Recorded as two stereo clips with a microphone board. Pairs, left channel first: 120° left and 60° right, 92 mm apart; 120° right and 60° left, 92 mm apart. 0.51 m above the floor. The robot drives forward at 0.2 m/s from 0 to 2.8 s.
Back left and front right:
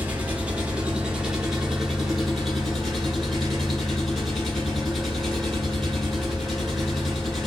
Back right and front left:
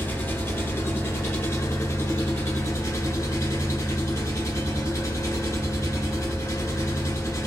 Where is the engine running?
100° right, 0.8 m; by 7.5 s 155° right, 1.0 m.